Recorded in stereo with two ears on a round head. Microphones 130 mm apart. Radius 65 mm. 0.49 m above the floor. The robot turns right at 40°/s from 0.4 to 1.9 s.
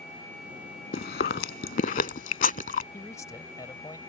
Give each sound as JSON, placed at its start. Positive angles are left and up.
{"t": 0.9, "sound": "chewing", "side_deg": 65}
{"t": 2.9, "sound": "a man speaking", "side_deg": 25}